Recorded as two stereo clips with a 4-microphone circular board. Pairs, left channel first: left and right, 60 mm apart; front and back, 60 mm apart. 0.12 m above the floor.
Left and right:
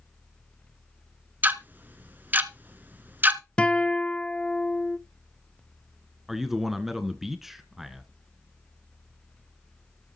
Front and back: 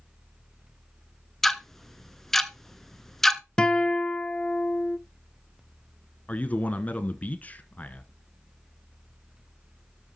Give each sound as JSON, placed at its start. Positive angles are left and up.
{"t": 1.4, "sound": "ticking", "azimuth_deg": -80, "distance_m": 0.9}
{"t": 3.6, "sound": "a guitar", "azimuth_deg": 50, "distance_m": 0.6}
{"t": 6.3, "sound": "a man speaking", "azimuth_deg": -10, "distance_m": 1.2}